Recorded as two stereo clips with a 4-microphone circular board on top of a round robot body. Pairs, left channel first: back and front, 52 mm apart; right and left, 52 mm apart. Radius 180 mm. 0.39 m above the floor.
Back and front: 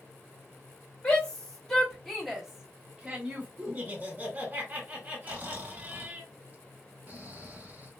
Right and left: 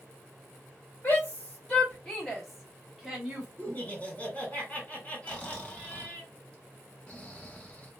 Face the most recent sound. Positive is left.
turn(degrees=-40)